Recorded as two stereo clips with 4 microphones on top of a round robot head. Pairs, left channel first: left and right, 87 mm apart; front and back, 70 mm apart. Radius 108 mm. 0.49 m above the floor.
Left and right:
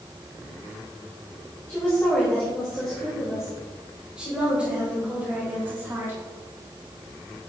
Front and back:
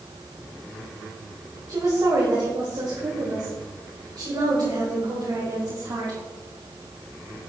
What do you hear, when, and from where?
1.7 s a woman speaking: 150° left, 2 m; by 6.2 s 150° right, 3 m